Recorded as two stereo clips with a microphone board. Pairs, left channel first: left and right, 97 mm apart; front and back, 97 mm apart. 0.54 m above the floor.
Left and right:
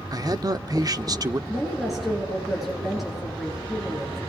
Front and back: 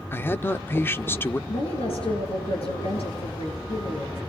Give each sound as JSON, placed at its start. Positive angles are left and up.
{"t": 0.1, "sound": "a man speaking", "azimuth_deg": -60, "distance_m": 0.9}
{"t": 1.5, "sound": "a woman speaking", "azimuth_deg": 0, "distance_m": 9.5}